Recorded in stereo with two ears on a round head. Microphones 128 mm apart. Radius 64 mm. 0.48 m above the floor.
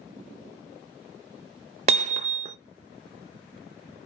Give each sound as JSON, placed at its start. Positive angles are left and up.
{"t": 1.9, "sound": "hammering", "side_deg": -40, "distance_m": 0.6}